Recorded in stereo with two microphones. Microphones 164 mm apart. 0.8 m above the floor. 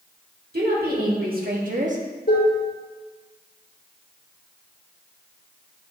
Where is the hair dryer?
No hair dryer in this recording.